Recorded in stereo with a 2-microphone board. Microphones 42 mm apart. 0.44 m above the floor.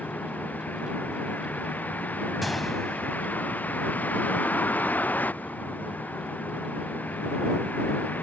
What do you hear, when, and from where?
0.0 s a vehicle: 40° left (ahead or behind)
2.4 s a gunshot: centre (ahead or behind)